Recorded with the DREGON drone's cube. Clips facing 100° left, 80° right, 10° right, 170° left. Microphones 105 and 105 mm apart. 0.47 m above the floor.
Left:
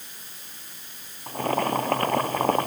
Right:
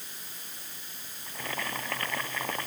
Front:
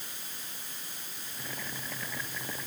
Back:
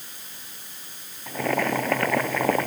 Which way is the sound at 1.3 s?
145° left.